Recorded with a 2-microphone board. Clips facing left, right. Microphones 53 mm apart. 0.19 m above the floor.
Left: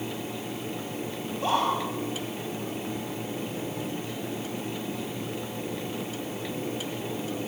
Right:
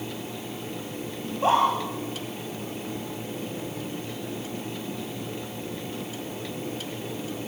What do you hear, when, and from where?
1.2 s a scream: 25° right (ahead or behind), 6.5 m